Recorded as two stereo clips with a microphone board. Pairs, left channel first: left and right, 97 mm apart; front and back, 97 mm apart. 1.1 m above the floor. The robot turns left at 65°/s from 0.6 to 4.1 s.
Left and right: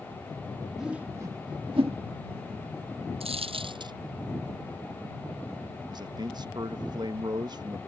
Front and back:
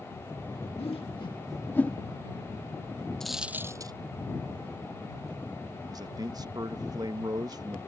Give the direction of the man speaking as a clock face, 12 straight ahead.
4 o'clock.